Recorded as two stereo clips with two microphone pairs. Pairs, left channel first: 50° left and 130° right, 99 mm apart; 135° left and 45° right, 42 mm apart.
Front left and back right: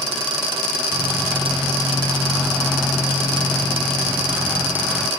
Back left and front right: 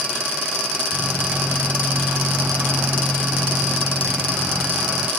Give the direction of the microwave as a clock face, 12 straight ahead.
2 o'clock.